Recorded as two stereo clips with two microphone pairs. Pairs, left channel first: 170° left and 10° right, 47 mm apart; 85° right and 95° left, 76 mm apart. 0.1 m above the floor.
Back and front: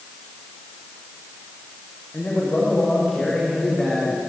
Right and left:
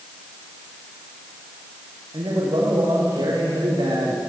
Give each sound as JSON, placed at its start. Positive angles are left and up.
{"t": 2.1, "sound": "a man speaking", "azimuth_deg": 105, "distance_m": 9.5}